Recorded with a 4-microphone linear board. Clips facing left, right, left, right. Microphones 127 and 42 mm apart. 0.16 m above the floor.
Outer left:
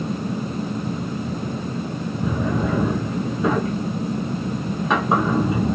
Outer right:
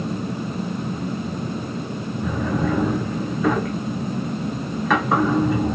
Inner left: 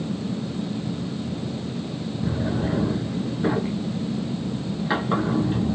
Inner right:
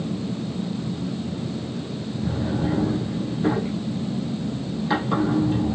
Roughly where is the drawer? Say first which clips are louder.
Even, inner right 1 dB; left.